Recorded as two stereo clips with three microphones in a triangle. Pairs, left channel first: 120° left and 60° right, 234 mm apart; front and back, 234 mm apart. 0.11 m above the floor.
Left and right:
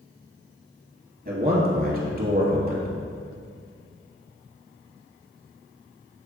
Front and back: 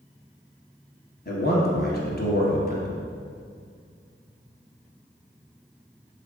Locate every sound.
1.2 s a man speaking: 30° right, 2.0 m